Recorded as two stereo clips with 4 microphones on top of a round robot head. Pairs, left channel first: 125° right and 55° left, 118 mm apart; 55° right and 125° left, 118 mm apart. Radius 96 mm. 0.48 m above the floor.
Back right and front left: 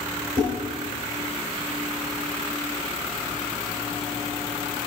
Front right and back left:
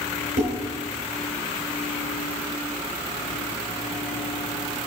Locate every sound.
0.4 s dishes clattering: 105° left, 5 m